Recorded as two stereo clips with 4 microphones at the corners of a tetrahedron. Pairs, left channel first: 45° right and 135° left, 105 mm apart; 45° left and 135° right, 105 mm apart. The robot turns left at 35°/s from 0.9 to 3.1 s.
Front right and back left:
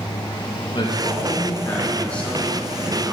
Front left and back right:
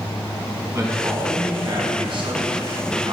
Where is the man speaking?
80° right, 3 m; by 3.1 s 155° right, 3 m.